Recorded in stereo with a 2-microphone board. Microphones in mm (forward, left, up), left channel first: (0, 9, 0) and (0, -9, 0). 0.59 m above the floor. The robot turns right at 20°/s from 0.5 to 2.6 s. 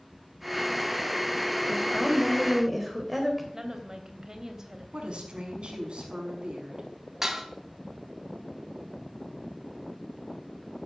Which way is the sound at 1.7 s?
10° left (ahead or behind).